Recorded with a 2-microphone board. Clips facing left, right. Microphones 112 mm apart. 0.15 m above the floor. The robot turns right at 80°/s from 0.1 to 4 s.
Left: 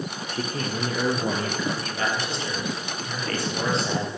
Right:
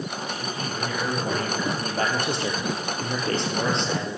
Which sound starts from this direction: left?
A man speaking, at 0.3 s.